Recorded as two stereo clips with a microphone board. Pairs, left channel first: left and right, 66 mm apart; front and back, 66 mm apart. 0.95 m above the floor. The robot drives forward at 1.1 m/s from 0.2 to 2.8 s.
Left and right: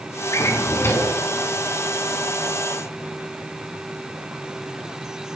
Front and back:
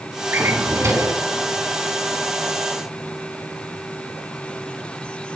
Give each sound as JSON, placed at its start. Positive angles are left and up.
{"t": 0.3, "sound": "a drawer", "azimuth_deg": 130, "distance_m": 2.0}